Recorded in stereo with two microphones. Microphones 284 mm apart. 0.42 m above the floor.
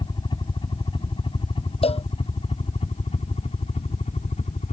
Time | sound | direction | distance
0.0 | a helicopter | 15° left (ahead or behind) | ?
1.8 | a cowbell | 20° left (ahead or behind) | ?